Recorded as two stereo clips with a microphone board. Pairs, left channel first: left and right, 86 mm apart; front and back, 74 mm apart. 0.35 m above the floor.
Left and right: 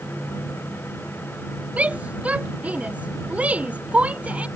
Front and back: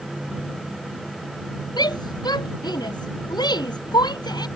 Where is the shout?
15° right.